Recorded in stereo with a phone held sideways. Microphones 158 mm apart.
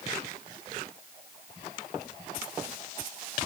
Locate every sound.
Only background noise.